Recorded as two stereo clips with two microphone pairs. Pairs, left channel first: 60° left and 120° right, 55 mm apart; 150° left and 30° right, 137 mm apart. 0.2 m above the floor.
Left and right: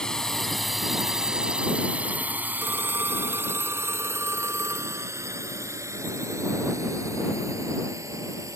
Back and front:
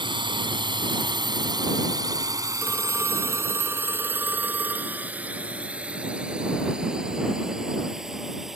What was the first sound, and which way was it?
A drone, 10° right.